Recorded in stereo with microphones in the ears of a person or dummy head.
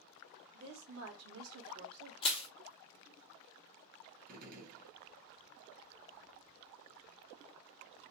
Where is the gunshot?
50° right (ahead or behind), 1.1 m.